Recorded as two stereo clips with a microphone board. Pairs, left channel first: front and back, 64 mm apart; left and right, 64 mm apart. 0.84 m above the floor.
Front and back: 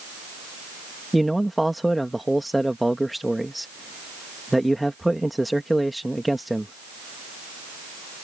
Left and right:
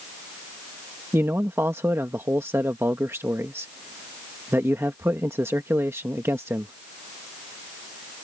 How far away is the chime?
I don't hear a chime.